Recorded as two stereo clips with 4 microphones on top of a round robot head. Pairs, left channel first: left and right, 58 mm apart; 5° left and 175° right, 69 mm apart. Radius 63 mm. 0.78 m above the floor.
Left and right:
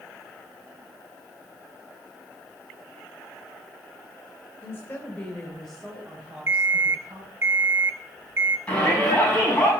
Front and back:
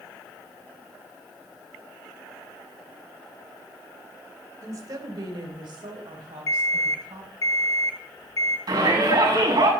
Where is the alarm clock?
40° right, 1.0 m.